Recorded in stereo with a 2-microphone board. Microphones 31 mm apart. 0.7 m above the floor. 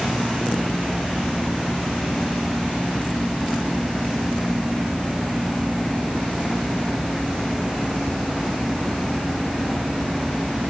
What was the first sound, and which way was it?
Only background noise.